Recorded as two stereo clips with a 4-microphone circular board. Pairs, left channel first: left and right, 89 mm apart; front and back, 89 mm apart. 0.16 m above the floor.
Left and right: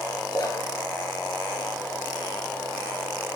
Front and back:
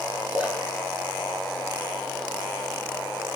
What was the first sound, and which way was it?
A splash, 110° left.